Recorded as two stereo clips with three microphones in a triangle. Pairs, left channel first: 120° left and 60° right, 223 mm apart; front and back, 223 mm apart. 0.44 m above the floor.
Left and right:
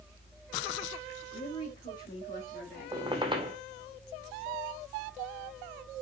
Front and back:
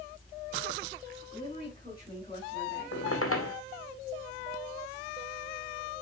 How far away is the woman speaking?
About 5 m.